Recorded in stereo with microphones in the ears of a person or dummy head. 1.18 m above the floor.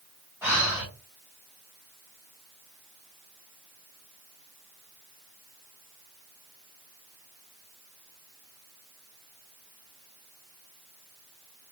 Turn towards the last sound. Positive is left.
turn(degrees=-15)  # may be behind; listen again after turning